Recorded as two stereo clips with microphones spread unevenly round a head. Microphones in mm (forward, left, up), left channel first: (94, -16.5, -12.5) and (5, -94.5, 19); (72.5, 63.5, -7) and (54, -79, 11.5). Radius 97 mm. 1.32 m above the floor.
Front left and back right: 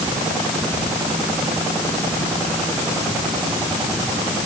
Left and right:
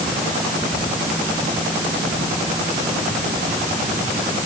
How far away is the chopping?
No chopping in this recording.